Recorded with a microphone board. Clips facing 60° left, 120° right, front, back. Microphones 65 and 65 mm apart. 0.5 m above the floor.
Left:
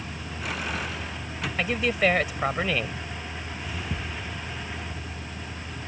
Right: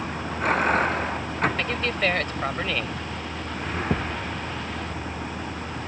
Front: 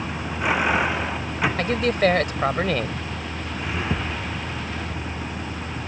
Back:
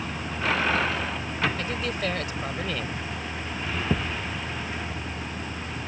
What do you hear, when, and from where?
0.0 s a vehicle: 75° right
1.6 s a man speaking: 20° right
3.9 s a thud: 110° right